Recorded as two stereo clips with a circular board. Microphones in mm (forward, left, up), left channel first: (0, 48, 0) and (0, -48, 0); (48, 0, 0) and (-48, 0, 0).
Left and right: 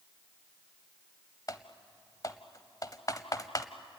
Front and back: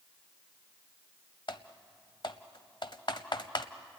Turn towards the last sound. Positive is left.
turn(degrees=40)